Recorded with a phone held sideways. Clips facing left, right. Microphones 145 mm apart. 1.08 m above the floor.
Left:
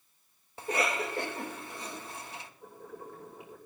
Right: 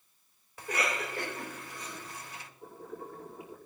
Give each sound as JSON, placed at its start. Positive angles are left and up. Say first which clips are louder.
{"t": 0.6, "sound": "a cough", "louder": "left 3 dB", "side_deg": 25, "distance_m": 1.8}
{"t": 2.6, "sound": "boiling", "louder": "right 5 dB", "side_deg": -35, "distance_m": 5.5}